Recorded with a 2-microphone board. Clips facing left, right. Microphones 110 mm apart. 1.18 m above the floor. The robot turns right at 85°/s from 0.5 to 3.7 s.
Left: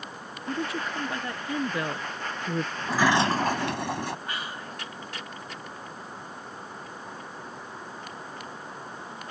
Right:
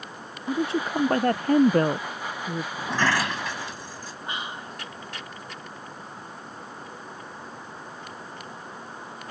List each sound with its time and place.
0.5 s a woman speaking: 160° right; by 2.7 s 25° left
2.8 s a sliding door: 10° right; by 4.2 s 70° left
4.3 s whispering: 20° right (ahead or behind)